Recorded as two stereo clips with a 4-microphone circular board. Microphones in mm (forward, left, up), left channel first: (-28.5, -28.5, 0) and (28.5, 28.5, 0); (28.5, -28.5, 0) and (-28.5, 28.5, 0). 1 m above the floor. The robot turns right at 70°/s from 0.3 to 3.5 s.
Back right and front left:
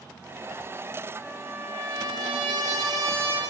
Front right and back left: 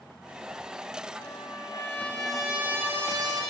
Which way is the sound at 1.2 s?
35° right.